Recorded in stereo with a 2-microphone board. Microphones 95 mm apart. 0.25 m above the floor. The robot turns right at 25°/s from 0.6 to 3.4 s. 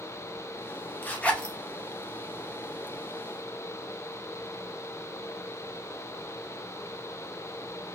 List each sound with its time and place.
1.0 s a zipper: 20° left (ahead or behind), 0.5 m; by 1.6 s 10° left (ahead or behind), 0.5 m